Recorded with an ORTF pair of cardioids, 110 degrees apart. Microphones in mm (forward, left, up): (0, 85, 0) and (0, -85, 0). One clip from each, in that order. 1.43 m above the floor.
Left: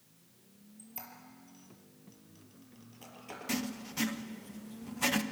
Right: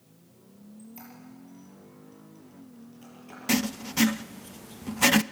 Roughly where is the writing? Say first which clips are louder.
Right 10 dB; ahead right.